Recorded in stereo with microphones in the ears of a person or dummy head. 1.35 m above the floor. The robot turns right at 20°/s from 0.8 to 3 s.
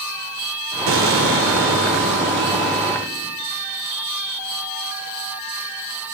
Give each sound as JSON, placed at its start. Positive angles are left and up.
{"t": 0.9, "sound": "an explosion", "azimuth_deg": -100, "distance_m": 1.0}